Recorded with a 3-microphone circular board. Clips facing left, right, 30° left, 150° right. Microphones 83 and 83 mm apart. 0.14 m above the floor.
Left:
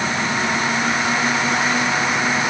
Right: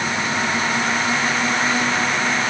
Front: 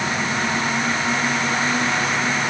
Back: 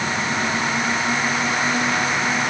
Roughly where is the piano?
I don't hear a piano.